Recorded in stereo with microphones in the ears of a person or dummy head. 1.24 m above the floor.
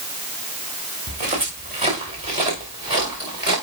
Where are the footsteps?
35° right (ahead or behind), 5.5 m; by 3.5 s 25° right (ahead or behind), 7 m.